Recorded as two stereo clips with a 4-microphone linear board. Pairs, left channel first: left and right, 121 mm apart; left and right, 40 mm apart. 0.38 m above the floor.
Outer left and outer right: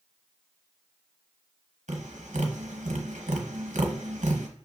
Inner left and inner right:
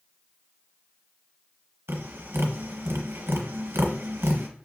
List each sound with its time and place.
1.9 s tapping: 75° right (ahead or behind), 0.9 m